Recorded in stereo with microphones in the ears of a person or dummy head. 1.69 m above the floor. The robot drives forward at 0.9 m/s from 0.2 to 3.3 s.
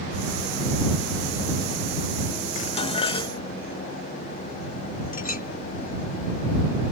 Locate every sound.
2.5 s dishes clattering: 45° left (ahead or behind); by 3.4 s 30° left (ahead or behind)
5.1 s a clink: 50° left (ahead or behind)